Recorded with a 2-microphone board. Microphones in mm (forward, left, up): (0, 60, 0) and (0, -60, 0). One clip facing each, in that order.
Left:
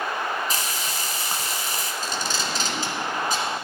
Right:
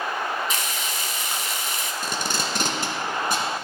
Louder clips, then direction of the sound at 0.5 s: Even; 40° left (ahead or behind).